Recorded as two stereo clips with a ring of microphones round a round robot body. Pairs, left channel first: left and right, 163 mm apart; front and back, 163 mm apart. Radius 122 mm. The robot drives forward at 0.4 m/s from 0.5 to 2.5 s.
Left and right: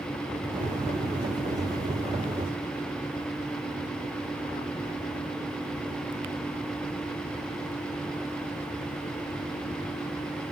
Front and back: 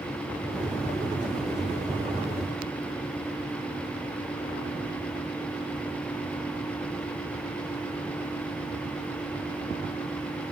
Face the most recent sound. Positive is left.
No sound to turn to.